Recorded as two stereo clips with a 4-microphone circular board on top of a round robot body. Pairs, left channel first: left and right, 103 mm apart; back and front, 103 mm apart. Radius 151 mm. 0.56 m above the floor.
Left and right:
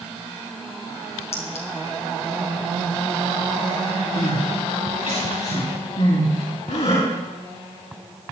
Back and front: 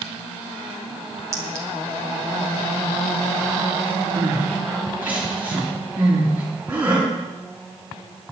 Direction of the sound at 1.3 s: 65° left.